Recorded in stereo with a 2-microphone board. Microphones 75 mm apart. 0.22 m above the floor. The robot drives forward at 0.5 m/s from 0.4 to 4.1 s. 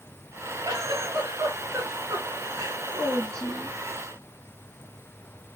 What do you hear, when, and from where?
0.7 s a giggle: 55° right (ahead or behind), 2.5 m; by 3.8 s 40° right (ahead or behind), 3 m